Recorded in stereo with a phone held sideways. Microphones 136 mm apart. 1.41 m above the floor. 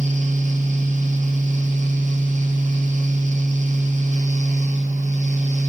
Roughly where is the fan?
Right.